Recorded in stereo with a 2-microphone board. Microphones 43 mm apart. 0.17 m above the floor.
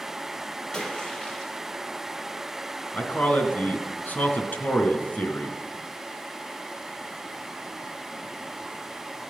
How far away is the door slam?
I don't hear a door slam.